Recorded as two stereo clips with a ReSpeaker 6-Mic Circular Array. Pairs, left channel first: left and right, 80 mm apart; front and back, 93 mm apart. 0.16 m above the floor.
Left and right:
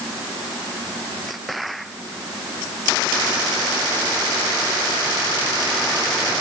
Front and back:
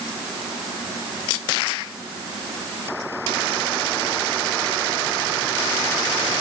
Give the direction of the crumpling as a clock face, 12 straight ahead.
I don't hear crumpling.